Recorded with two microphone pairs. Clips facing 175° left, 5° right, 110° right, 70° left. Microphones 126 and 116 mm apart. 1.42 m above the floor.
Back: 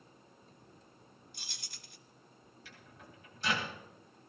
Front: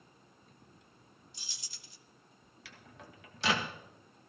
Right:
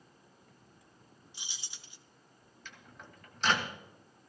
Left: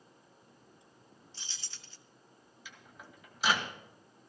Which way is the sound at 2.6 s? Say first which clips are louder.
Front 3 dB, right 1 dB; 10° right.